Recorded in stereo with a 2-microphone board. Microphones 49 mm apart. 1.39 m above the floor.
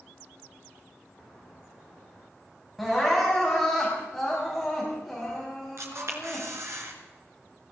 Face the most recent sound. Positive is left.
turn(degrees=-70)  # may be behind; listen again after turning